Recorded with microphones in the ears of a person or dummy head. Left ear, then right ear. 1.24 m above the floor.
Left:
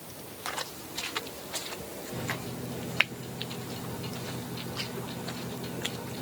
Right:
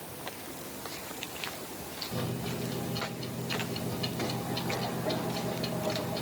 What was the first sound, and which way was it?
A microwave, 60° right (ahead or behind).